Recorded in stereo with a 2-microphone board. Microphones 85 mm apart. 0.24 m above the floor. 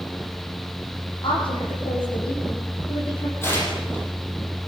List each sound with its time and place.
1.2 s a woman speaking: 85° left, 9 m
3.4 s tearing paper: 30° left (ahead or behind), 9 m